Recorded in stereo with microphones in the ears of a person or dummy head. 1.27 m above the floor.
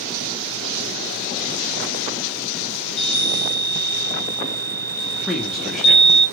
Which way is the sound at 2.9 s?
55° left (ahead or behind).